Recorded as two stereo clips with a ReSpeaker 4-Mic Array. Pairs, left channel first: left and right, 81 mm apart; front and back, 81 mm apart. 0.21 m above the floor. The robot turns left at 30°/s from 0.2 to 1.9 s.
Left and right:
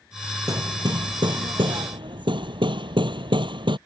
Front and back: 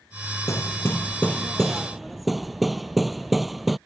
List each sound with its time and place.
0.5 s hammering: 45° right; by 3.8 s 90° right